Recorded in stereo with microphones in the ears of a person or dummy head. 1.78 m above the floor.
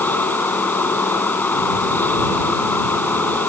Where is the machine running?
10° left (ahead or behind).